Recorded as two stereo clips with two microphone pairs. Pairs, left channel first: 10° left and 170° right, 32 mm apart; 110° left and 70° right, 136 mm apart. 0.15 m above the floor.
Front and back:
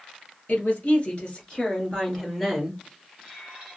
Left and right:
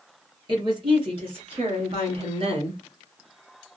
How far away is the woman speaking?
About 2 m.